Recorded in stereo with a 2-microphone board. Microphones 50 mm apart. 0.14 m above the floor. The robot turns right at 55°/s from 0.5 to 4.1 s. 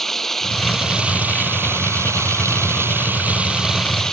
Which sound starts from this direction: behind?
Running water, at 0.0 s.